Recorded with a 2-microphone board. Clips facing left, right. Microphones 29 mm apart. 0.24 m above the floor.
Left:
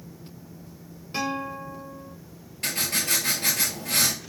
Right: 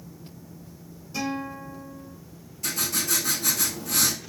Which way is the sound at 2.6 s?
75° left (ahead or behind).